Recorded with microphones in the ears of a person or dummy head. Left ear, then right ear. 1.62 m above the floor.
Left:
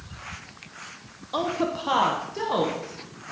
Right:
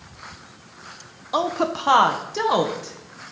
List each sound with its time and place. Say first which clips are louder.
1.3 s a woman speaking: right 4 dB; 25° right (ahead or behind), 1.2 m; by 3.3 s 65° right (ahead or behind), 1.8 m